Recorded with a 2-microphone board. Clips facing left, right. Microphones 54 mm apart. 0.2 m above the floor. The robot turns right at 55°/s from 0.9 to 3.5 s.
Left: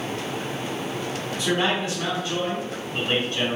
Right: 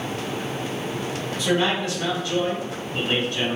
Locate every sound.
1.4 s a man speaking: 5° left, 1.9 m; by 3.6 s 125° left, 1.9 m